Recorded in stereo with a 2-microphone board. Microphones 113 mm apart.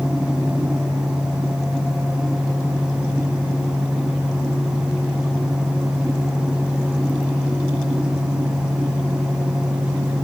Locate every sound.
Only background noise.